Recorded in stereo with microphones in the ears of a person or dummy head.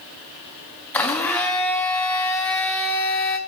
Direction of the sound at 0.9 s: 10° left (ahead or behind).